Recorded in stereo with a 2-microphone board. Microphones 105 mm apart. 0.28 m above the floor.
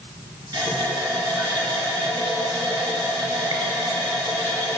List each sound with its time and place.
0.5 s a running tap: 40° right (ahead or behind), 1.7 m